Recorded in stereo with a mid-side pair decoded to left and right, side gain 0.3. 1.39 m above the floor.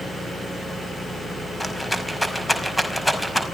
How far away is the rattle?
About 5 m.